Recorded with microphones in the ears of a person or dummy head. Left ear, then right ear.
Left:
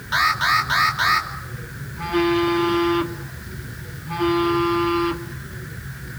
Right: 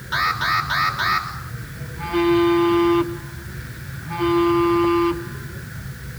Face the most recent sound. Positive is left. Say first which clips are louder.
# right 2 dB
turn(degrees=10)  # may be behind; listen again after turning